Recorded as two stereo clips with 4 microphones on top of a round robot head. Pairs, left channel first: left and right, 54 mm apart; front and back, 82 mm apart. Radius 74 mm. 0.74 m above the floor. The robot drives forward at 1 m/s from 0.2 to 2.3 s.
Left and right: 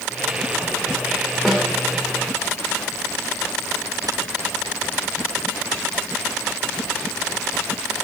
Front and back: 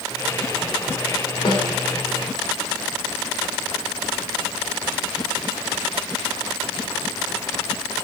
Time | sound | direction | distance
1.4 | a snare drum | 5° right | 2.5 m